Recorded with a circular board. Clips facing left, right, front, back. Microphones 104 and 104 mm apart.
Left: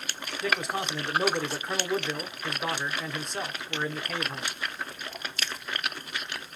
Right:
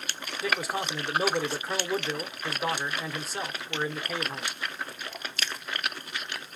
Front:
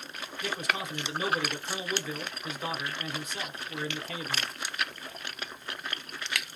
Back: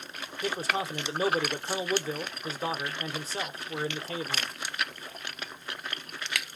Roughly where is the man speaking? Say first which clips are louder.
Even, back 3 dB; behind.